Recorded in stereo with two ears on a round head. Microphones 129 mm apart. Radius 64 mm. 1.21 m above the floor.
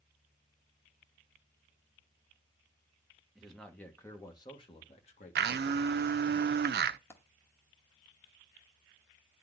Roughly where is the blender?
Right.